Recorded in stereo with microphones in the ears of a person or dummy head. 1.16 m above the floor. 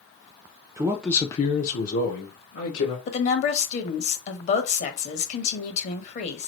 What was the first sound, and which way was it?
A man speaking, 20° right (ahead or behind).